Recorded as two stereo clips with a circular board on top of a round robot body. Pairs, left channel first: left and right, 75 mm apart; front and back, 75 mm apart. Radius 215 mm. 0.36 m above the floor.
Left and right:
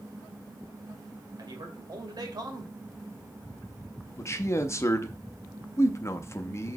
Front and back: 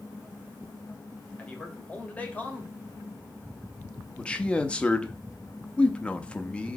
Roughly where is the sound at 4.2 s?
Ahead left.